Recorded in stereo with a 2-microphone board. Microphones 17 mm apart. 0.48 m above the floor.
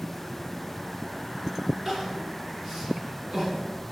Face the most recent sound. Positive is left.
turn(degrees=-25)  # may be behind; listen again after turning